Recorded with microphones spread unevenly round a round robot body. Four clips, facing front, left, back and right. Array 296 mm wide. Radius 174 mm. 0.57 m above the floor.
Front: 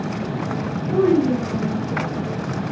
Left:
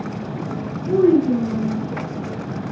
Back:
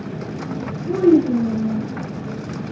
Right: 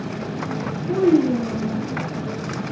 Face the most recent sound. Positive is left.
turn(degrees=140)